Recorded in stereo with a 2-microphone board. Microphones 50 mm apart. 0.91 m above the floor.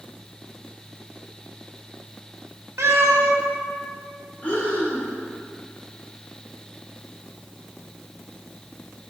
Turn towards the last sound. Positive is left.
turn(degrees=30)  # may be behind; listen again after turning